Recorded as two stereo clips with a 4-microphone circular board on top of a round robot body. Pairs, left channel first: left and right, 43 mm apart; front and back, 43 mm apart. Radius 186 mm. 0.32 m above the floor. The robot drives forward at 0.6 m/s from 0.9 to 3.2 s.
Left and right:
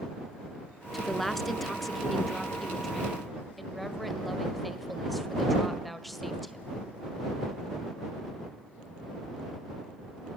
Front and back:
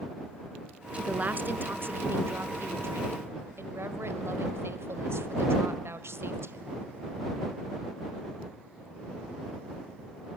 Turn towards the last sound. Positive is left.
turn(degrees=180)